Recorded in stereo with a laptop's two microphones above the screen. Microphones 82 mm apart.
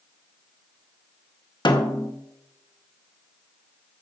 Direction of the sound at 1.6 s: 65° left (ahead or behind).